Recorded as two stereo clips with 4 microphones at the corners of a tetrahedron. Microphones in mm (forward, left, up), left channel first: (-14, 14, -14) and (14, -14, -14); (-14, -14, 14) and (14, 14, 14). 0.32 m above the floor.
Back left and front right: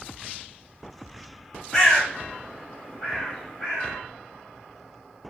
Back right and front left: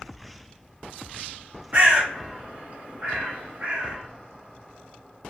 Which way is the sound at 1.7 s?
60° left.